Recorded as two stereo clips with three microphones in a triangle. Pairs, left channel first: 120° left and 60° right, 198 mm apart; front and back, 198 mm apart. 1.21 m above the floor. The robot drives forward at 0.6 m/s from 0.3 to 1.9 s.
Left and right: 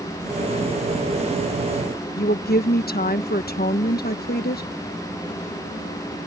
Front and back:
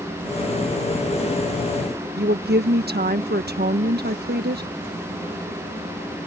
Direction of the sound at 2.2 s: 150° left.